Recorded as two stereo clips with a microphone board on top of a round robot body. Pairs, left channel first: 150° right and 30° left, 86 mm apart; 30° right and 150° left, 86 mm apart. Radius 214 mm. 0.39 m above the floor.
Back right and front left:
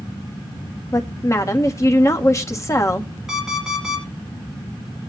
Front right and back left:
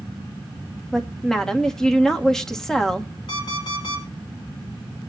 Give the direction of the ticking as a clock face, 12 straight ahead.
I don't hear ticking.